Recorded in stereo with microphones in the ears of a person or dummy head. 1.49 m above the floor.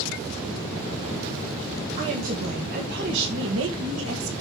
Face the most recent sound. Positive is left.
turn(degrees=-80)